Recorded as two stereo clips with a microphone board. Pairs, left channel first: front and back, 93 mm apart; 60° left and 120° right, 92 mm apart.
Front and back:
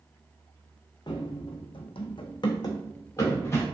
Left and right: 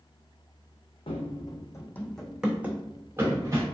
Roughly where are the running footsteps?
Ahead left.